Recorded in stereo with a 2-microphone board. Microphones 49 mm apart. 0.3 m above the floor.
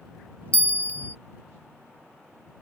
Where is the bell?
25° left (ahead or behind).